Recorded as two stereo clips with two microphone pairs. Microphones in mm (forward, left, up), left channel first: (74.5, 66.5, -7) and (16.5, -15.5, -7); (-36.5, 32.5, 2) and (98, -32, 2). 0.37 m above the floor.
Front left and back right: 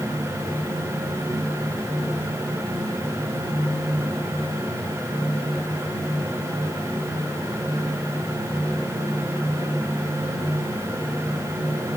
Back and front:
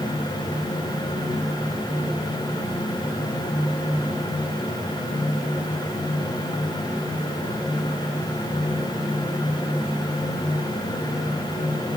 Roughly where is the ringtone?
No ringtone in this recording.